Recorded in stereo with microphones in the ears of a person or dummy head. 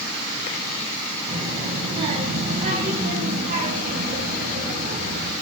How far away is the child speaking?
About 7 m.